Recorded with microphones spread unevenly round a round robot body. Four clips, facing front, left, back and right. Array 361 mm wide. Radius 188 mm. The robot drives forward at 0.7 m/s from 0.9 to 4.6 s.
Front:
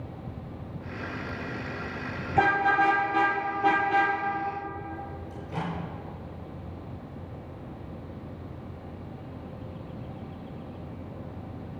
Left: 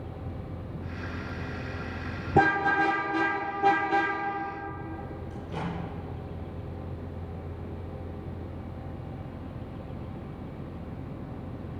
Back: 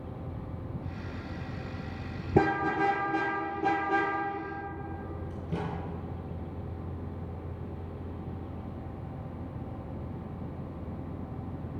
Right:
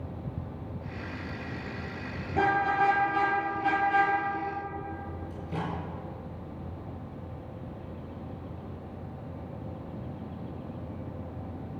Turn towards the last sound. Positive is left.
turn(degrees=-175)